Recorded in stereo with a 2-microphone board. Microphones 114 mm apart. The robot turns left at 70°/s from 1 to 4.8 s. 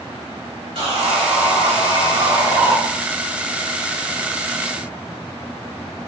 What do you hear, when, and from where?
0.8 s sawing: 60° right, 1.6 m; by 2.8 s 175° left, 1.6 m